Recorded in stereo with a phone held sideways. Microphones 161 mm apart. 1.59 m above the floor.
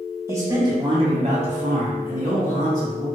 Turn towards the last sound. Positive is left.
turn(degrees=-50)  # may be behind; listen again after turning